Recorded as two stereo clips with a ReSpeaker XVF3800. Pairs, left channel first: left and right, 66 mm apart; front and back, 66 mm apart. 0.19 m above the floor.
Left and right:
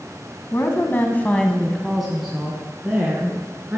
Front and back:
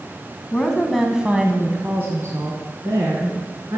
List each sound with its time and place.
0.5 s a woman speaking: 75° left, 1.9 m; by 3.8 s 155° right, 3.5 m